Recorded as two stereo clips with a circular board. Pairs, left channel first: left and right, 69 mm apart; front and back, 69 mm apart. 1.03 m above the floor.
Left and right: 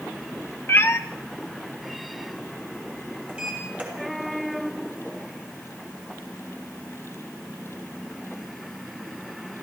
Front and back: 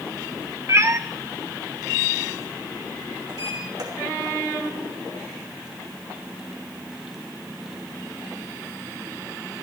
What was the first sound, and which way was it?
A cat meowing, 140° left.